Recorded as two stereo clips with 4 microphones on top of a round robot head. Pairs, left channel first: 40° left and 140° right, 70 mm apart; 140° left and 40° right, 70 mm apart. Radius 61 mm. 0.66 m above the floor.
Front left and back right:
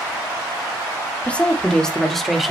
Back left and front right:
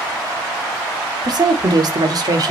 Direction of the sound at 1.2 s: 30° right.